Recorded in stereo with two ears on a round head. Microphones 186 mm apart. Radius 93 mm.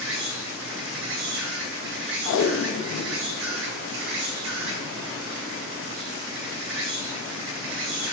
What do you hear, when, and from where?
0.0 s an insect: 65° right (ahead or behind), 1.9 m
2.2 s tape being pulled: 70° left (ahead or behind), 0.5 m